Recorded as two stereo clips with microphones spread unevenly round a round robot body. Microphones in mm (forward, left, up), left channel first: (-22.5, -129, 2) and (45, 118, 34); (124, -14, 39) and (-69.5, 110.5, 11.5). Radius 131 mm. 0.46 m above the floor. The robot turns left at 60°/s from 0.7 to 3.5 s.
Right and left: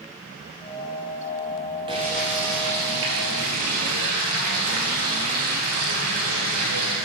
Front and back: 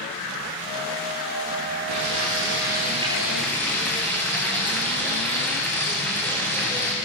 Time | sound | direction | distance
1.9 | frying | 145° left | 8.5 m